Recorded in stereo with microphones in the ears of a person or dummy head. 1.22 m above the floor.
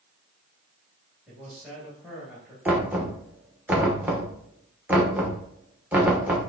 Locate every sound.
1.3 s a man speaking: 10° right (ahead or behind), 1.7 m
2.6 s knocking: 10° right (ahead or behind), 0.8 m